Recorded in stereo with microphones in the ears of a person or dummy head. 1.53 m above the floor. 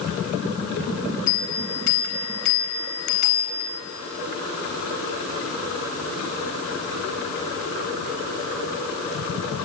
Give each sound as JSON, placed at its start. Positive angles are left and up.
{"t": 1.3, "sound": "a bell", "side_deg": 50, "distance_m": 4.0}